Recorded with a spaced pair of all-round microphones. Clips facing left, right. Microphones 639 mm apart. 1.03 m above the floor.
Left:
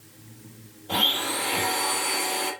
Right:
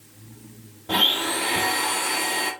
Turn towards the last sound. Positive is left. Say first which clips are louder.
# right 3 dB
turn(degrees=-80)